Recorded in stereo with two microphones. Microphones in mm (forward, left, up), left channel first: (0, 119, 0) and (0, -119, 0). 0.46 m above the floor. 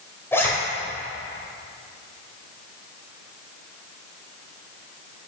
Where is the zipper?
10° left (ahead or behind), 2.5 m.